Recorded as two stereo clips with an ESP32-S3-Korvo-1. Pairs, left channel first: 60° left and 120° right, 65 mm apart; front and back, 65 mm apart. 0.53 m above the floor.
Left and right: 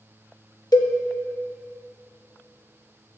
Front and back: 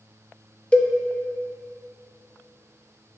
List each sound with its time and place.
0.7 s a cowbell: 70° left, 0.6 m